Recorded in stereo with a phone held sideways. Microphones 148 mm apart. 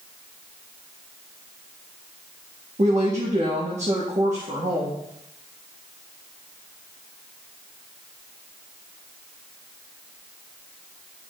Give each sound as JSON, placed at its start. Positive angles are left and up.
{"t": 2.8, "sound": "a woman speaking", "side_deg": -50, "distance_m": 1.2}